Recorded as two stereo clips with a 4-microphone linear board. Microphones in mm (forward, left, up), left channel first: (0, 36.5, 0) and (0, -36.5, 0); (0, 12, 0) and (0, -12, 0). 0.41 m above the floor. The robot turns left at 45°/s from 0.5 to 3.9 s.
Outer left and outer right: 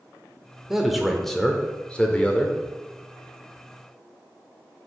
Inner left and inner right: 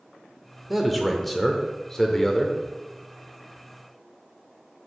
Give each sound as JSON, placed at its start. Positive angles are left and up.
{"t": 0.7, "sound": "a man speaking", "side_deg": -10, "distance_m": 0.8}